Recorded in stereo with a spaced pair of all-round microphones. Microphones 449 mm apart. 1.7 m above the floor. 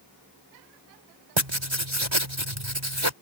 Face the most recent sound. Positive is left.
turn(degrees=-80)